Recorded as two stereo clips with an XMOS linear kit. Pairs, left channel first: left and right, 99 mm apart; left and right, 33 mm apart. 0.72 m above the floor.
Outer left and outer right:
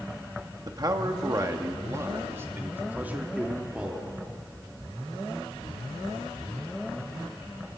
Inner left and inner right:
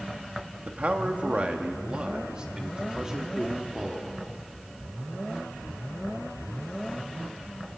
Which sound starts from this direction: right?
A man speaking, at 0.7 s.